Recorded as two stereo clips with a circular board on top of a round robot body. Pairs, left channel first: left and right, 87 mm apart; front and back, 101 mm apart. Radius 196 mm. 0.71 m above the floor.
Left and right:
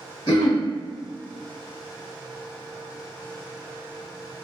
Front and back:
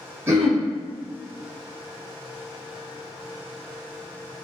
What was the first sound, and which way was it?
Throat clearing, 115° left.